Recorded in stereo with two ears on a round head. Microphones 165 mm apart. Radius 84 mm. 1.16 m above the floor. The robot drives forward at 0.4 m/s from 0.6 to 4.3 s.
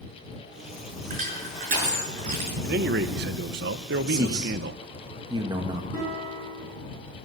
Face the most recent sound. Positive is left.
turn(degrees=-10)  # may be behind; listen again after turning